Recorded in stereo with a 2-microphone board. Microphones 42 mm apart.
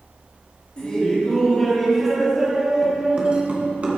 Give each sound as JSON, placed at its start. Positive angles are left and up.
{"t": 0.8, "sound": "laughter", "side_deg": 25, "distance_m": 1.8}